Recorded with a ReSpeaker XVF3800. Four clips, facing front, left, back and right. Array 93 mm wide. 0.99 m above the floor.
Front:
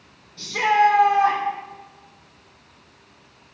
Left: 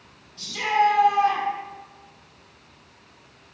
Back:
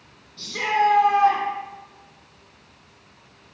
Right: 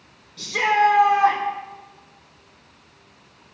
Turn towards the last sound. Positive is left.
turn(degrees=-85)